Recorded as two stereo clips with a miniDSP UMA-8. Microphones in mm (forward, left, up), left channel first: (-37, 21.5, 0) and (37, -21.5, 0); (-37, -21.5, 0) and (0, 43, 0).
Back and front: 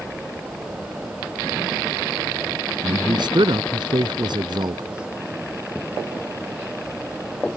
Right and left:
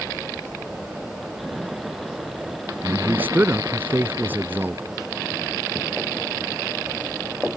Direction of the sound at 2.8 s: 5° right.